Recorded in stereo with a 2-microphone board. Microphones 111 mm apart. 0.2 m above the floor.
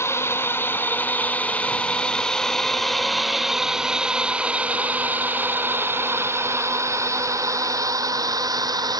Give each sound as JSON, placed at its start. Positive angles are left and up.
{"t": 0.0, "sound": "a drone", "side_deg": 25}